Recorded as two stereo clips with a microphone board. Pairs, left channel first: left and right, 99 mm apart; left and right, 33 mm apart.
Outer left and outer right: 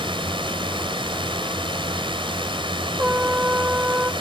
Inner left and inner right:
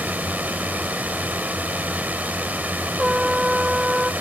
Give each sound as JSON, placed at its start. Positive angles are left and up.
{"t": 0.0, "sound": "a drone", "side_deg": -55}
{"t": 3.0, "sound": "a trumpet", "side_deg": -15}